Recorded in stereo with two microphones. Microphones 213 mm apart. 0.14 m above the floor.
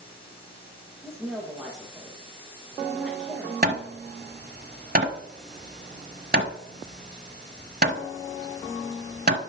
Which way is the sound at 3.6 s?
45° right (ahead or behind).